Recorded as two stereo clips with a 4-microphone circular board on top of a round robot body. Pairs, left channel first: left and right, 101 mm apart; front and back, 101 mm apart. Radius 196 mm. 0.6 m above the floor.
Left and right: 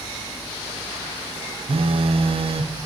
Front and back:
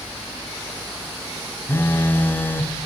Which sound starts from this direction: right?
A phone buzzing, at 1.7 s.